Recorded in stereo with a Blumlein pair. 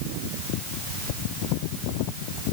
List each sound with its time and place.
Only background noise.